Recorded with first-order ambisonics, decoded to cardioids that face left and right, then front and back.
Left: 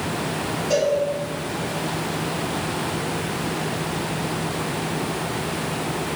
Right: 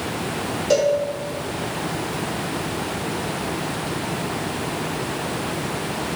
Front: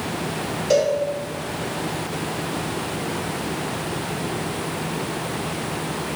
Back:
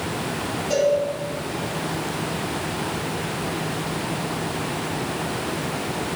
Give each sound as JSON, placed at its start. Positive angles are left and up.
{"t": 0.7, "sound": "a cowbell", "azimuth_deg": -55, "distance_m": 1.4}